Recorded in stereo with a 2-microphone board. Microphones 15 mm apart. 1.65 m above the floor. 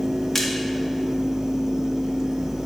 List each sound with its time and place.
0.3 s a splash: 25° left (ahead or behind), 1.5 m